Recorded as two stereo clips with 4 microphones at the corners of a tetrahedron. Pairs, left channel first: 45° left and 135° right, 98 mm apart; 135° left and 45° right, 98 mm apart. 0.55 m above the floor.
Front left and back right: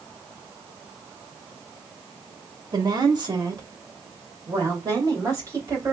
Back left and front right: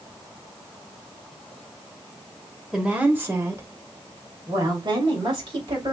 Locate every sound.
2.7 s a woman speaking: 125° right, 1.4 m; by 5.9 s 80° right, 3.5 m